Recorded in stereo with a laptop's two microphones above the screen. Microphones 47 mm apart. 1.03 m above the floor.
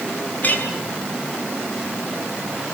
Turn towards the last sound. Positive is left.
turn(degrees=40)  # may be behind; listen again after turning